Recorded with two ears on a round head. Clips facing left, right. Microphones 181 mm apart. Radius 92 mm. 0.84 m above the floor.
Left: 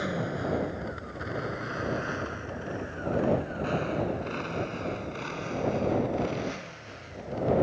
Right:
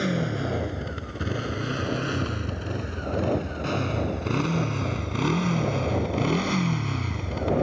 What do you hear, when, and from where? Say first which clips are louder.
0.0 s a motorcycle: right 4 dB; 35° right (ahead or behind); by 7.6 s 85° right